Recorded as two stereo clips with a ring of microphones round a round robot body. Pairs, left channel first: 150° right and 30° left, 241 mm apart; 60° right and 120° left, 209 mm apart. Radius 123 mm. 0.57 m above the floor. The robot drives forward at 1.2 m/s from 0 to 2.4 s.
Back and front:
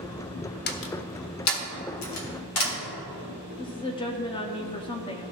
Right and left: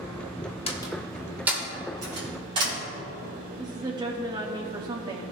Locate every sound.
0.7 s a door slam: 115° right, 0.8 m; by 2.8 s 170° right, 2.5 m
3.6 s a woman speaking: 165° left, 0.7 m